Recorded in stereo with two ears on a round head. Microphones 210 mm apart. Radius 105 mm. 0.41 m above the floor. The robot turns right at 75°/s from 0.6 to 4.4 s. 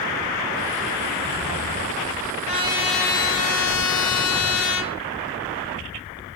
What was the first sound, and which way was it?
A trumpet, 35° right.